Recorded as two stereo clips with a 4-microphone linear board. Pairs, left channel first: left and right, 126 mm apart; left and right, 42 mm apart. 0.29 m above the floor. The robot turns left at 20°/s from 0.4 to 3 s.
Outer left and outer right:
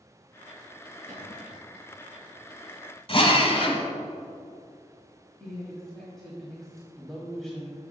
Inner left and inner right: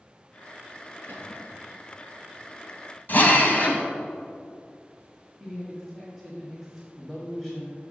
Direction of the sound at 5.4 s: 5° left (ahead or behind).